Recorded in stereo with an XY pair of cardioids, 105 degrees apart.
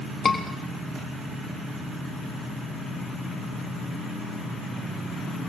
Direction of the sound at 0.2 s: 35° left.